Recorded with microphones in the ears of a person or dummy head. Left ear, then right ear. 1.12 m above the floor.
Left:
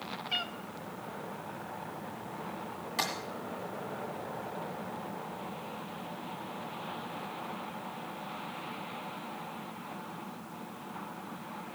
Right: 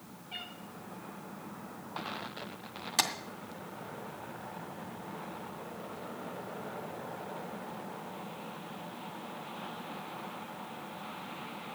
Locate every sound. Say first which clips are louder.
0.3 s a cat meowing: left 8 dB; 60° left (ahead or behind), 1.3 m
3.0 s tapping: right 3 dB; 30° right (ahead or behind), 1.9 m